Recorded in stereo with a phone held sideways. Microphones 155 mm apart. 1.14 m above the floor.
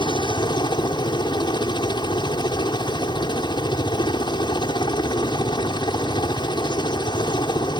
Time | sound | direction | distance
0.0 | a helicopter | 30° left (ahead or behind) | ?